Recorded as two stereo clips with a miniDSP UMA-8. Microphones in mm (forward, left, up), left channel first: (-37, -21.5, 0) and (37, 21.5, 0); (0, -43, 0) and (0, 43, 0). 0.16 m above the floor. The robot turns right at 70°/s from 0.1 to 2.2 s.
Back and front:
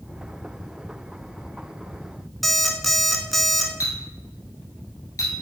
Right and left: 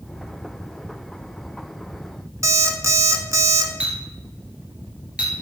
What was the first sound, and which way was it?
An alarm clock, 120° left.